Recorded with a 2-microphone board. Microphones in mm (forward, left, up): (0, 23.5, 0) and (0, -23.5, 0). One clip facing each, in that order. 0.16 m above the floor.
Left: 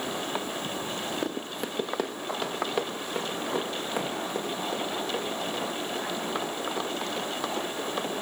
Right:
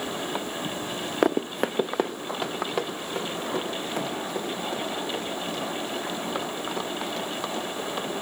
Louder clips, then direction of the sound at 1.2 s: Right 8 dB; 80° right.